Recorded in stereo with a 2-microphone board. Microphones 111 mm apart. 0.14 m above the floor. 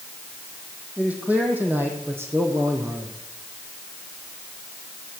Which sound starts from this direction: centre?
A man speaking, at 1.0 s.